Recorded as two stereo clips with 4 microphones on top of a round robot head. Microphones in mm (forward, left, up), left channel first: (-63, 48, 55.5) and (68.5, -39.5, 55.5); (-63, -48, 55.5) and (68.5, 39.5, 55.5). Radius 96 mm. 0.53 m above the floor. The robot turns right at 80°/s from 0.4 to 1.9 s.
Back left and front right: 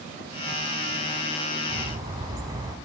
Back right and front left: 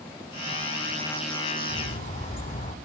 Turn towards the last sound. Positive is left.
turn(degrees=-105)